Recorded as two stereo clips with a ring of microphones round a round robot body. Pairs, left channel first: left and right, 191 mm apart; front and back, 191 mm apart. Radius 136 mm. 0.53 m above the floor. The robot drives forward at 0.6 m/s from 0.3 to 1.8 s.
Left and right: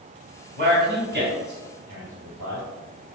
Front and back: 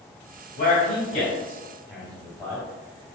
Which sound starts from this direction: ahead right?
A man speaking, at 0.6 s.